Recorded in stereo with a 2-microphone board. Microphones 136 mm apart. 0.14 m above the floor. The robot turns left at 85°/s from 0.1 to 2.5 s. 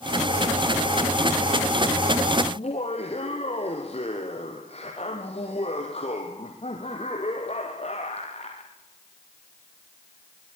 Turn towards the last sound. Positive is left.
turn(degrees=50)  # may be behind; listen again after turning